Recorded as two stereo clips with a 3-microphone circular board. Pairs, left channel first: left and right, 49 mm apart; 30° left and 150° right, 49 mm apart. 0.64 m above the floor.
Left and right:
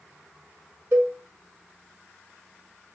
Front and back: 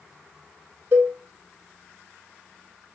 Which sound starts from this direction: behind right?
A cowbell, at 0.9 s.